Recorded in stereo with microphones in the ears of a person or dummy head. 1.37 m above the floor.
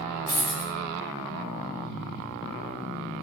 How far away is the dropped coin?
About 1.0 m.